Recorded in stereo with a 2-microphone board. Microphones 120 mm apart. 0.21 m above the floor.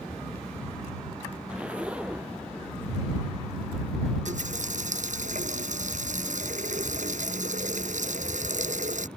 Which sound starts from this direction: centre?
A zipper, at 1.5 s.